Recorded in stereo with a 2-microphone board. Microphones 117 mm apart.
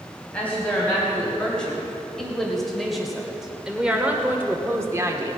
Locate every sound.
0.3 s a woman speaking: 10° left (ahead or behind), 3 m; by 5.4 s 30° right (ahead or behind), 1.2 m